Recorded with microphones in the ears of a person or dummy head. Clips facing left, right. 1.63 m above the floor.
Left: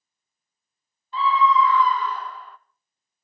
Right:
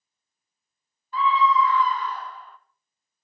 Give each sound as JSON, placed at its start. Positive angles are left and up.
{"t": 1.1, "sound": "a scream", "side_deg": 30, "distance_m": 0.6}